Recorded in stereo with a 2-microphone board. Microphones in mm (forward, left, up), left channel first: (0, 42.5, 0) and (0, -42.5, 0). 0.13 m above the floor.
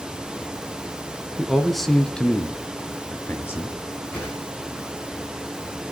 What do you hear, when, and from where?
1.4 s a man speaking: 5° right (ahead or behind), 1.5 m; by 3.8 s 30° left (ahead or behind), 2 m
4.1 s a whoosh: 15° left (ahead or behind), 5.5 m